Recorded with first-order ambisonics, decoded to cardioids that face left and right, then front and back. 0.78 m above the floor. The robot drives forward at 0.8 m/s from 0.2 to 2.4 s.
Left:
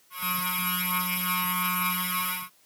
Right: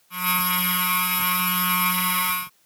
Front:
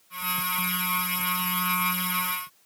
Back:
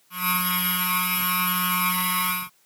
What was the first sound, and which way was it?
Only background noise.